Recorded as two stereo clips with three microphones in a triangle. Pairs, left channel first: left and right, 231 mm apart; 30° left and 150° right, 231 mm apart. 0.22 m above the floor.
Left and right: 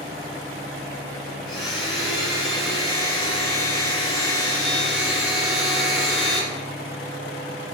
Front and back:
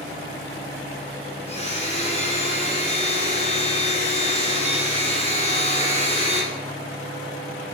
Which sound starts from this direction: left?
A blender, at 1.5 s.